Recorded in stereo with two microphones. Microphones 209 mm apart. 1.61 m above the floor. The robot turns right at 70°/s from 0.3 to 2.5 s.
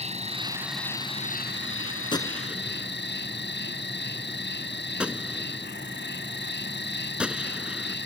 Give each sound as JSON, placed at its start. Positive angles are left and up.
{"t": 0.0, "sound": "an insect", "azimuth_deg": -30}
{"t": 2.1, "sound": "a gunshot", "side_deg": 20}